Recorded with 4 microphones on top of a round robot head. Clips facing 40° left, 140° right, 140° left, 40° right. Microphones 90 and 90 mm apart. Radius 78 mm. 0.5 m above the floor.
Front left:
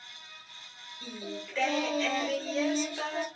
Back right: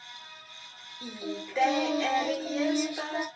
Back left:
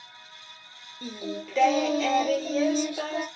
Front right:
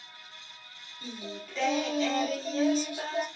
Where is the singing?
145° left, 0.6 m.